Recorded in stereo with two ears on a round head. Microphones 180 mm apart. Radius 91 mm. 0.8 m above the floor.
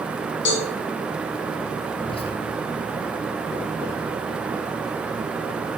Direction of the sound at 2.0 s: 25° left (ahead or behind).